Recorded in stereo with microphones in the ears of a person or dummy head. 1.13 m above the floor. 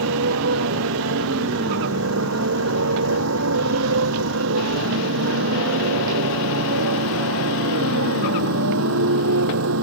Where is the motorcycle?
80° right; by 9.8 s 85° right.